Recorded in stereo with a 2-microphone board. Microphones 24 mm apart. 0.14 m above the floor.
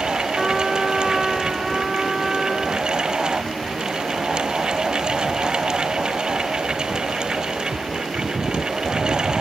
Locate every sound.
0.4 s a trumpet: 5° right (ahead or behind), 1.2 m